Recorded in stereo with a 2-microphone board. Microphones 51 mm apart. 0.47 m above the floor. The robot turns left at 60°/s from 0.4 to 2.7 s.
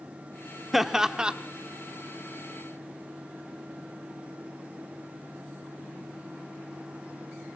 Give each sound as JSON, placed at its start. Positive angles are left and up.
{"t": 0.7, "sound": "laughter", "side_deg": -5, "distance_m": 0.8}